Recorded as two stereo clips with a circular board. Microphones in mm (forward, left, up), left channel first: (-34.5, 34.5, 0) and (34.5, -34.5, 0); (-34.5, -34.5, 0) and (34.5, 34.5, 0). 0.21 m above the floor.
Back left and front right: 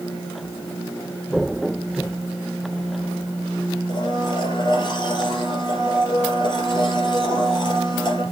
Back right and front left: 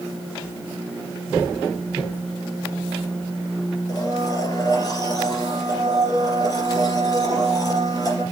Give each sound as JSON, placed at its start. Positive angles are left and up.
{"t": 3.9, "sound": "a blender", "azimuth_deg": 175, "distance_m": 3.5}